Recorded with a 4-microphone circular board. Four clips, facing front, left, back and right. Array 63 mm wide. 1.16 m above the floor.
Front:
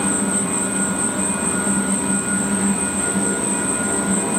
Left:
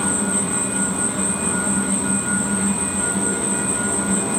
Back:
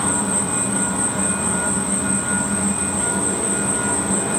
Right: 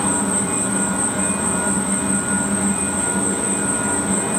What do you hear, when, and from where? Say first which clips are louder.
0.0 s an insect: right 2 dB, front 1 dB; 135° right, 1.9 m